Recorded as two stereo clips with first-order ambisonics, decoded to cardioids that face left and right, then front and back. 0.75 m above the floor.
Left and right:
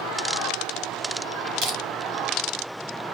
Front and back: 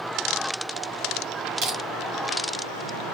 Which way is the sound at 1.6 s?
135° right.